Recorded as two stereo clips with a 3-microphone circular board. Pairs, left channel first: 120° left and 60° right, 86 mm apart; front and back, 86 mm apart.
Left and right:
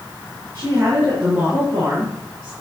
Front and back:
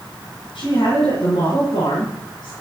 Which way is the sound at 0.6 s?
5° left.